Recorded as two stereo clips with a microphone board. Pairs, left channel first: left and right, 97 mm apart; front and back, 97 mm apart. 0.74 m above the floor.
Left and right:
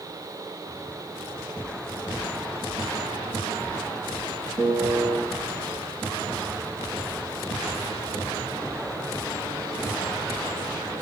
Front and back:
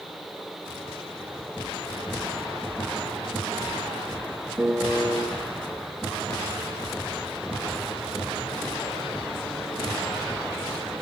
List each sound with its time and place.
4.6 s a piano: 120° right, 0.8 m